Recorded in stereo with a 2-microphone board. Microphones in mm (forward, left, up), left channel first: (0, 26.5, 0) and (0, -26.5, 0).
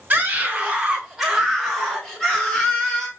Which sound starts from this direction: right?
A scream, at 0.1 s.